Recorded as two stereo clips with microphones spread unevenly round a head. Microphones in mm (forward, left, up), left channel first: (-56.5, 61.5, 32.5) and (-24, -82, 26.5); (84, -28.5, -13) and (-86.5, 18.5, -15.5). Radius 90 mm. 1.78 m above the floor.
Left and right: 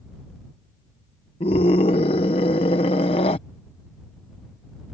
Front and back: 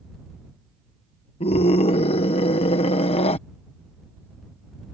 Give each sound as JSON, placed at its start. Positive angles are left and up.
{"t": 1.4, "sound": "a scream", "azimuth_deg": 40}